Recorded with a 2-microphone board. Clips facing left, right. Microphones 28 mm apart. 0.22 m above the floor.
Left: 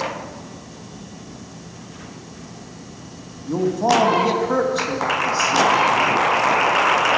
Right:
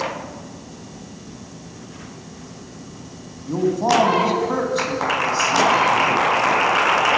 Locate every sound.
3.5 s a man speaking: centre (ahead or behind), 1.3 m